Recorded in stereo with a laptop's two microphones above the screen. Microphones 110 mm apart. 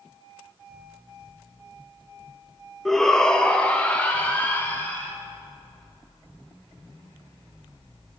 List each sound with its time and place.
2.9 s a shout: centre (ahead or behind), 0.9 m; by 5.1 s 15° left (ahead or behind), 2.5 m